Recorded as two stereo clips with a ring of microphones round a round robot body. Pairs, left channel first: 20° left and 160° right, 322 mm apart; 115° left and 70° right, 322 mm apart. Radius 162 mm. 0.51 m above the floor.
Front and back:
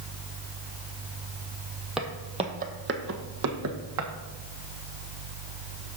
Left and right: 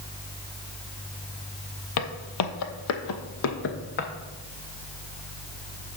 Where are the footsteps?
115° left, 0.8 m; by 4.1 s 170° left, 1.4 m.